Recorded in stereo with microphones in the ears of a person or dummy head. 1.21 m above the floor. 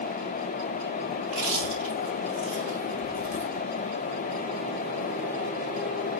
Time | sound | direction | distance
1.2 | chewing | 30° left (ahead or behind) | 1.0 m